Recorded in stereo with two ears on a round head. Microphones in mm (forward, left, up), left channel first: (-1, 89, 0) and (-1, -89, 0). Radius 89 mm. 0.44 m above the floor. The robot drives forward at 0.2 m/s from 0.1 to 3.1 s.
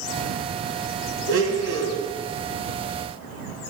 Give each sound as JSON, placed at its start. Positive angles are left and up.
{"t": 1.3, "sound": "a blender", "side_deg": -75, "distance_m": 2.0}